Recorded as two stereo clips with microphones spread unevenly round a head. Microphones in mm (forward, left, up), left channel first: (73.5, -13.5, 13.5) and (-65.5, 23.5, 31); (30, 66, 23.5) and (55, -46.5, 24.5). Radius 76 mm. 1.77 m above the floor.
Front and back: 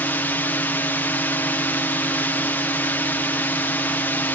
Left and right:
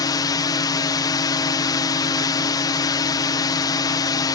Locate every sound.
0.0 s a drone: 55° left